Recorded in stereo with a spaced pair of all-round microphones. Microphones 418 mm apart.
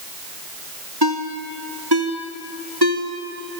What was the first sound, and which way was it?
A ringtone, 65° right (ahead or behind).